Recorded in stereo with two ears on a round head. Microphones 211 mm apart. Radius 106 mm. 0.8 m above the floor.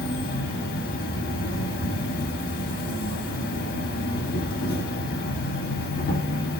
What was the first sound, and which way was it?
An insect, 40° left (ahead or behind).